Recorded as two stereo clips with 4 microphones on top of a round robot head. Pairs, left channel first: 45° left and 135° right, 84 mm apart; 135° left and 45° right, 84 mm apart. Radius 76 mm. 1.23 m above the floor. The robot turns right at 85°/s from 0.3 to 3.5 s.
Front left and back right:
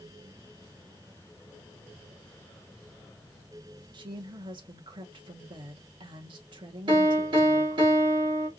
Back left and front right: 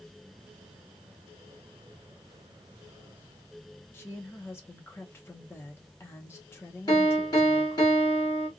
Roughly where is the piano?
Behind.